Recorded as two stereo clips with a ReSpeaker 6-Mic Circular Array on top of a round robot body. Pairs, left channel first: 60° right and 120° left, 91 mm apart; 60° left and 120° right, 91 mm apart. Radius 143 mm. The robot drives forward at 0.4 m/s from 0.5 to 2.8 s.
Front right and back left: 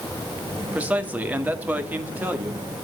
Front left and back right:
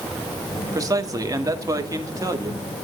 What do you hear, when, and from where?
0.7 s a man speaking: 170° right, 2 m